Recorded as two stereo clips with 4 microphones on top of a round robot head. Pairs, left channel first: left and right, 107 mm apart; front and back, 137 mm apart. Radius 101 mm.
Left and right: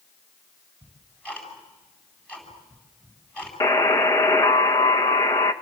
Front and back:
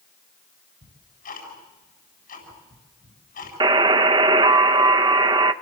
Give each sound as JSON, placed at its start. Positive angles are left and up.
{"t": 0.8, "sound": "ticking", "azimuth_deg": 10, "distance_m": 8.5}
{"t": 3.6, "sound": "a buzzer", "azimuth_deg": 150, "distance_m": 0.8}